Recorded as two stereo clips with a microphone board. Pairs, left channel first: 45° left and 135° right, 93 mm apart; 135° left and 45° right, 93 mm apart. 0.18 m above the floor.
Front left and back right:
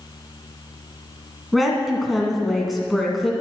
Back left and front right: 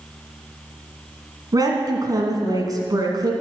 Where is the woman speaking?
45° right, 1.7 m.